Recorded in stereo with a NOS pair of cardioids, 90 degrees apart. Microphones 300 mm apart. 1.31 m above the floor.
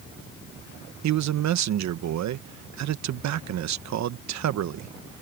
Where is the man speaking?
65° right.